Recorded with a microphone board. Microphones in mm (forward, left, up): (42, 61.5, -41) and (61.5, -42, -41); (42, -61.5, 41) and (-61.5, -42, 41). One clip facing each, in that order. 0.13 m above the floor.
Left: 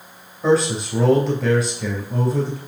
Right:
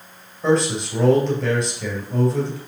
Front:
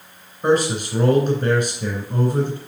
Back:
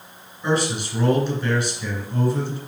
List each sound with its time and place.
0.4 s a man speaking: 15° left, 2.5 m